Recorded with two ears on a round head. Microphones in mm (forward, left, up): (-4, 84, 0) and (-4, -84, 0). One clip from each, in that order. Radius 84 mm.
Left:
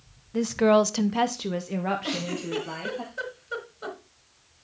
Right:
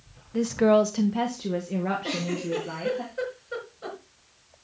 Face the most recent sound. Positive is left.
turn(degrees=45)  # may be behind; listen again after turning